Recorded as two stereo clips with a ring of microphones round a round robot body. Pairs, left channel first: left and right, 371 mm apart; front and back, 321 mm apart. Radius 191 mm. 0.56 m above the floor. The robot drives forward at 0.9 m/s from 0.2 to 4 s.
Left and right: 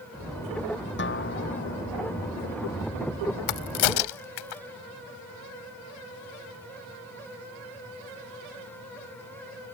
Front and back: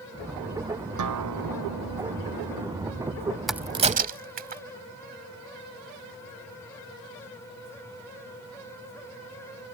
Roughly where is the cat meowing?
No cat meowing in this recording.